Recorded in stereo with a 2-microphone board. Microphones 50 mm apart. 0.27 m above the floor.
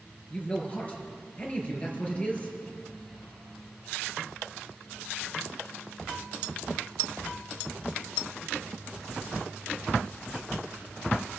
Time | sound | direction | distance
0.3 | a man speaking | 25° left (ahead or behind) | 3.5 m